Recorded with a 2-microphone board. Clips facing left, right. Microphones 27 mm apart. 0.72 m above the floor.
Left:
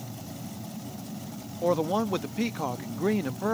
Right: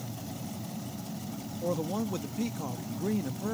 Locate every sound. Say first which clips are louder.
1.6 s a man speaking: left 7 dB; 35° left (ahead or behind)